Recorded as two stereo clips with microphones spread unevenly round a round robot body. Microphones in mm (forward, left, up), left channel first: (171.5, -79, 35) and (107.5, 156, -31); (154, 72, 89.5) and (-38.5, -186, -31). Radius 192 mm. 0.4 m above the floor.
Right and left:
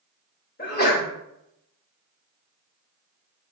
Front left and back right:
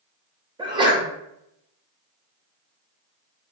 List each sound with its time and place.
0.6 s a sneeze: 130° right, 1.2 m